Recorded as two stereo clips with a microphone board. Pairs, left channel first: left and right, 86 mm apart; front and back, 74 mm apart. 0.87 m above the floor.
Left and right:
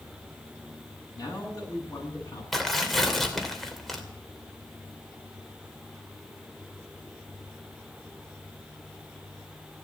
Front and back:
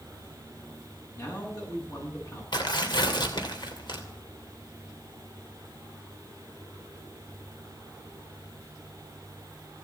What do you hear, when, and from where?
1.1 s a man speaking: 40° left, 10 m
2.5 s tearing paper: straight ahead, 2.5 m